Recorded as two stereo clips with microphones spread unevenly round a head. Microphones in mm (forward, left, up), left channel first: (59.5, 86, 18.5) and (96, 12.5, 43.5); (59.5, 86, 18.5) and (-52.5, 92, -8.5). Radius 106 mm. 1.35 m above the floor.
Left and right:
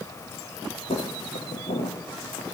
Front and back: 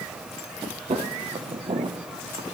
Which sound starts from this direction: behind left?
Footsteps, at 0.9 s.